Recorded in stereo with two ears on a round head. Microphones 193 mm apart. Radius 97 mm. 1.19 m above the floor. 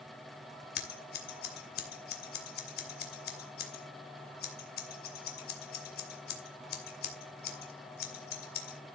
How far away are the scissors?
About 2.5 m.